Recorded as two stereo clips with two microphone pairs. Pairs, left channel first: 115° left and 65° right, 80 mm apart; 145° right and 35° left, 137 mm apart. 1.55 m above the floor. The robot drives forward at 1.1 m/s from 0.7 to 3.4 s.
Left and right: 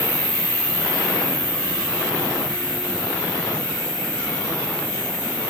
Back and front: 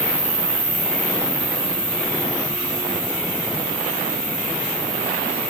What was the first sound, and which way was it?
An insect, 120° left.